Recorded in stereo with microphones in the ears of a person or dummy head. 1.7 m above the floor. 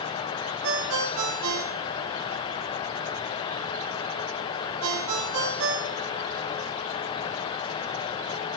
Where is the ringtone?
70° right (ahead or behind), 2.5 m.